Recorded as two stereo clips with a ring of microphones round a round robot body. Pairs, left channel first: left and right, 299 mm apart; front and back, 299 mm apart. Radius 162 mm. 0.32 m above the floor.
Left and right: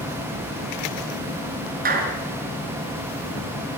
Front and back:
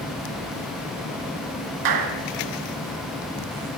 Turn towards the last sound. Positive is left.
turn(degrees=-155)